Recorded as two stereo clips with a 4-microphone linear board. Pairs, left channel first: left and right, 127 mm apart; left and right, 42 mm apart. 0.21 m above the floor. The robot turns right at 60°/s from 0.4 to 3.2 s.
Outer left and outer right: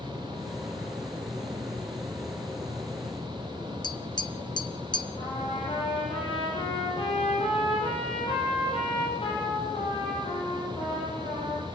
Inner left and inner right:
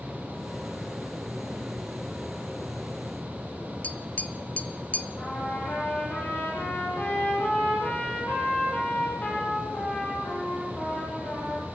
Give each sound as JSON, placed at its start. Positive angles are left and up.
{"t": 3.8, "sound": "tapping", "side_deg": 35, "distance_m": 0.9}
{"t": 5.2, "sound": "a trumpet", "side_deg": 45, "distance_m": 8.0}